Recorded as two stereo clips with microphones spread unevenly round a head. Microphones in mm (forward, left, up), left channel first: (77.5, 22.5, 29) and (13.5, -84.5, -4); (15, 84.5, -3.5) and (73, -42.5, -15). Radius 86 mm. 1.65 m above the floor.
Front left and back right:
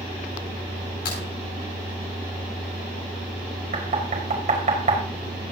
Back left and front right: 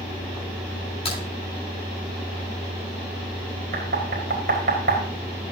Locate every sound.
1.1 s a crack: 70° left, 9.5 m
3.7 s knocking: 100° right, 5 m